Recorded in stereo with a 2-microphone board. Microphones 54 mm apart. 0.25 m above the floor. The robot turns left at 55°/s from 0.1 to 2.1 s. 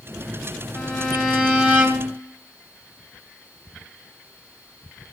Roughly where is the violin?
Ahead.